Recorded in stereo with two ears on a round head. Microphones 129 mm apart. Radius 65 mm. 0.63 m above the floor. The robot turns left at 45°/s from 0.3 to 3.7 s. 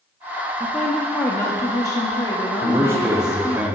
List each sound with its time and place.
0.6 s a woman speaking: 5° left (ahead or behind), 0.9 m; by 3.6 s 15° left (ahead or behind), 0.9 m
2.6 s a man speaking: 20° right (ahead or behind), 0.9 m; by 3.8 s 10° right (ahead or behind), 0.9 m